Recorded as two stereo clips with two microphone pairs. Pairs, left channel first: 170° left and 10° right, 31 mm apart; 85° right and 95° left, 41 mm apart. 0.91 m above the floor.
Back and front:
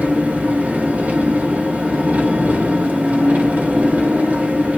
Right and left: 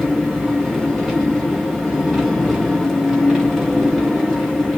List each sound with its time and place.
0.0 s an engine running: 10° left, 3 m